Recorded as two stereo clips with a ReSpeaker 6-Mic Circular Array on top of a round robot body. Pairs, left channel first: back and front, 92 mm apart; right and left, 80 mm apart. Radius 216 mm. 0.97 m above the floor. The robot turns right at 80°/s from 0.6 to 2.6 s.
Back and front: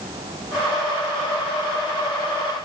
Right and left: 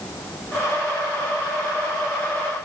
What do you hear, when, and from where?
Only background noise.